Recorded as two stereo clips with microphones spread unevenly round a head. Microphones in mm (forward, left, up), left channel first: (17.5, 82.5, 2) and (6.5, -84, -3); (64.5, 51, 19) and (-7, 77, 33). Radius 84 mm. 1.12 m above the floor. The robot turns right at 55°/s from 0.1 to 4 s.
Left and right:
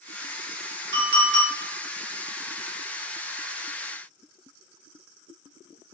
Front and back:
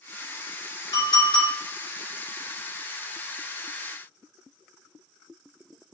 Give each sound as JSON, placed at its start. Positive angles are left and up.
{"t": 0.9, "sound": "a clink", "azimuth_deg": -70, "distance_m": 1.8}